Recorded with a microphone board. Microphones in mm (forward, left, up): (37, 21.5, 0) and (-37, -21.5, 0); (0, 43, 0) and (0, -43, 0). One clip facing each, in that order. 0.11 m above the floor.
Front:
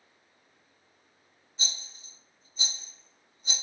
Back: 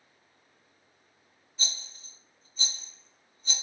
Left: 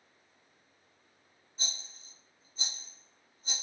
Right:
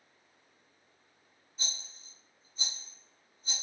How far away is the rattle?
About 2.0 m.